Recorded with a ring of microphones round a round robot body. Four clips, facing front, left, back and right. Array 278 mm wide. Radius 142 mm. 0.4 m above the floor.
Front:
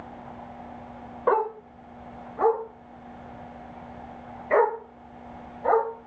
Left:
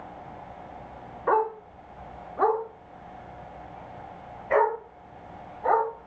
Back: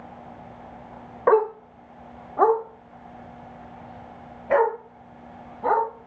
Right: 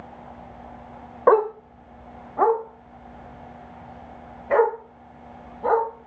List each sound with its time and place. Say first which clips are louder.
1.3 s a dog barking: right 7 dB, back 5 dB; 105° right, 0.7 m; by 6.1 s 150° right, 5.5 m